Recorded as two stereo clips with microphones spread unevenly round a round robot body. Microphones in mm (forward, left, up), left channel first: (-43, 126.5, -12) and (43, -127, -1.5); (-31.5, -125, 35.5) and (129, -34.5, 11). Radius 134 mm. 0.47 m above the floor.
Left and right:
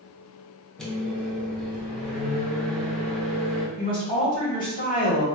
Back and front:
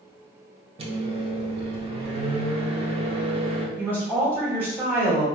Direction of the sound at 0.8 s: 25° left.